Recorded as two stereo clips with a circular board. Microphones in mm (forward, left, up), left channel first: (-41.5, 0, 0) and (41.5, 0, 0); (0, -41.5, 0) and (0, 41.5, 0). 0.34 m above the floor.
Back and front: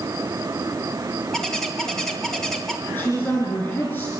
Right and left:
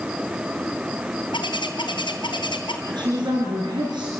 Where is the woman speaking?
115° left, 5 m.